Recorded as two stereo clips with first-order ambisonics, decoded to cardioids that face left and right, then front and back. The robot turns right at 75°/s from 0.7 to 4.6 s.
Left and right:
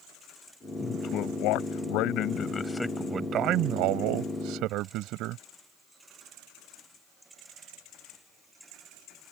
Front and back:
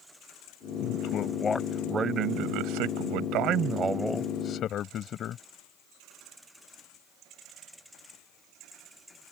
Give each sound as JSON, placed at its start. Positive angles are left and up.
{"t": 0.8, "sound": "a man speaking", "azimuth_deg": 20}